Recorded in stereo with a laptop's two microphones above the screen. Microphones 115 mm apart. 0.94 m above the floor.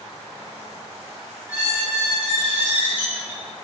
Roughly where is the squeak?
Centre.